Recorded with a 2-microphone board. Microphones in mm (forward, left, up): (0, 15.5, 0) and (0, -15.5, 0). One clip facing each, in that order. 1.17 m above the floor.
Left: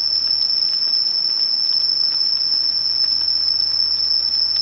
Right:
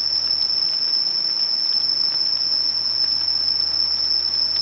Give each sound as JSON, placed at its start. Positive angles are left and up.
{"t": 0.0, "sound": "an insect", "side_deg": 30, "distance_m": 1.0}